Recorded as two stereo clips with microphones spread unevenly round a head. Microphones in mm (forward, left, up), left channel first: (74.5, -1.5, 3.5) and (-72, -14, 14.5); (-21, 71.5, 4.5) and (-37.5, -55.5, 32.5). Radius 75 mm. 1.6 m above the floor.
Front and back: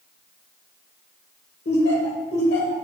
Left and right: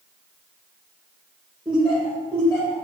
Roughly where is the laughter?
Ahead.